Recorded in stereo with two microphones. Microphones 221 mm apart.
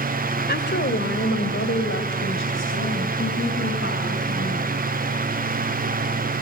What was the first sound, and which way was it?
A woman speaking, 50° left (ahead or behind).